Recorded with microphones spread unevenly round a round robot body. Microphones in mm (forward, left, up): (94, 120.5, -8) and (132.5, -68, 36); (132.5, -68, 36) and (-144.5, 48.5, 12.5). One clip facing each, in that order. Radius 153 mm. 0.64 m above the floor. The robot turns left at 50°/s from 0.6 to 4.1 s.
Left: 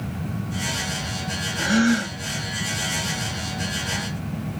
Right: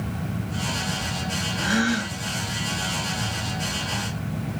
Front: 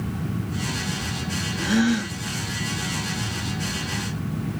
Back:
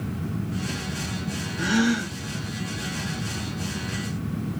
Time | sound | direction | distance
1.6 | a gasp | 120° left | 1.3 m